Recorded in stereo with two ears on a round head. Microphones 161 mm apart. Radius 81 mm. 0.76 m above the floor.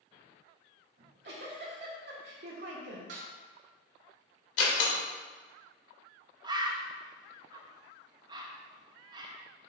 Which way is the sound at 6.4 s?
25° right (ahead or behind).